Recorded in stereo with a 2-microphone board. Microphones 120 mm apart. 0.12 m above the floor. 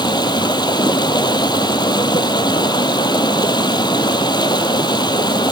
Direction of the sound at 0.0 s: 40° left (ahead or behind).